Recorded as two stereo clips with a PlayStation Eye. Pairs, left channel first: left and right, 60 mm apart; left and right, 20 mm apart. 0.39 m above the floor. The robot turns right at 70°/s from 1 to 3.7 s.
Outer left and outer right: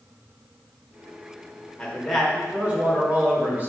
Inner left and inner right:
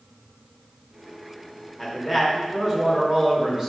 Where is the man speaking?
155° left, 1.0 m; by 3.7 s 70° right, 1.0 m.